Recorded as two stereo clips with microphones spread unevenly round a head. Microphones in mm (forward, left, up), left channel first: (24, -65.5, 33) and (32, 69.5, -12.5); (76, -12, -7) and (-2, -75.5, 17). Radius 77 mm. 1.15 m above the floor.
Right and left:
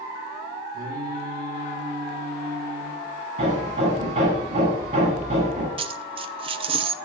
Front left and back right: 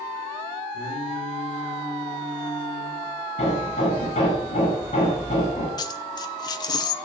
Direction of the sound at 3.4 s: 60° left.